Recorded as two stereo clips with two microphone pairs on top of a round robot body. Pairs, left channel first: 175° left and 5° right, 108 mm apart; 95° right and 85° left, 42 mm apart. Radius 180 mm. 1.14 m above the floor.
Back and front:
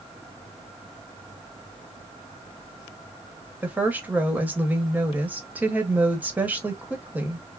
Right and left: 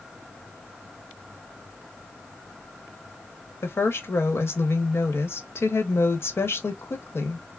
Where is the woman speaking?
80° right, 1.1 m.